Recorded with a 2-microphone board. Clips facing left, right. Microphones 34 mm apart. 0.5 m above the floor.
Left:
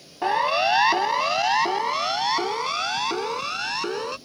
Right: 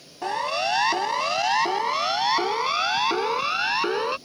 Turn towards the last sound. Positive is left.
turn(degrees=-25)  # may be behind; listen again after turning